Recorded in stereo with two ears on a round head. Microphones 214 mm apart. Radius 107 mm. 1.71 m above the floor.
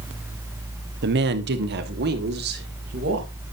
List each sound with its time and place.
1.0 s a woman speaking: 50° right (ahead or behind), 1.0 m; by 3.3 s 45° right (ahead or behind), 3 m